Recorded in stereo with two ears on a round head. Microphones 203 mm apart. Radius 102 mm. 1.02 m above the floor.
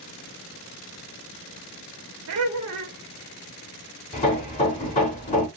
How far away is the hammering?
About 1.1 m.